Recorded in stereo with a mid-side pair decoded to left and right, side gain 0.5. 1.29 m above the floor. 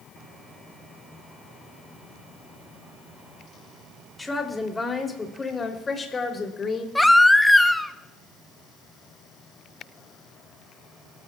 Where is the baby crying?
5° left, 0.8 m.